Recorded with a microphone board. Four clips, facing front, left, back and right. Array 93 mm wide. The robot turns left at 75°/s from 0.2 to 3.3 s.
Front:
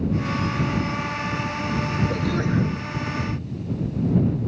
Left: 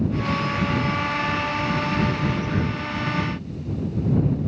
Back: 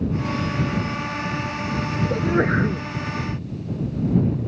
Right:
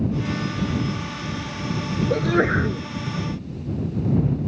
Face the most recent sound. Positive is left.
turn(degrees=170)